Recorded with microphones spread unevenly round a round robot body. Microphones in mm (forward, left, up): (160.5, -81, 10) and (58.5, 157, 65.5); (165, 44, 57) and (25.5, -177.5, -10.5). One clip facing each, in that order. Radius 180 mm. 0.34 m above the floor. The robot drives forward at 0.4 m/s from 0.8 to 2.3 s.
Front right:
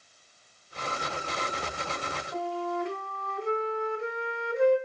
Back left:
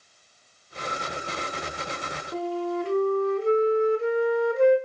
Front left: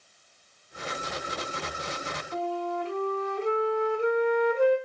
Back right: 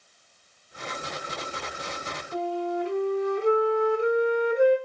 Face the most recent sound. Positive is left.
turn(degrees=175)